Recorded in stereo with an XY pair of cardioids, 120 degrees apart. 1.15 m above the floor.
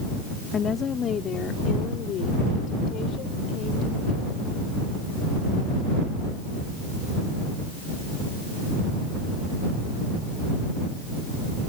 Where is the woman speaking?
40° left; by 4.4 s 70° left.